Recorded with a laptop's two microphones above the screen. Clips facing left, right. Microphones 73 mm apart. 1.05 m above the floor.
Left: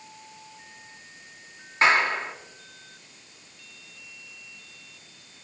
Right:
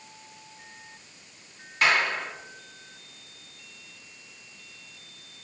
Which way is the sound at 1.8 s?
30° left (ahead or behind).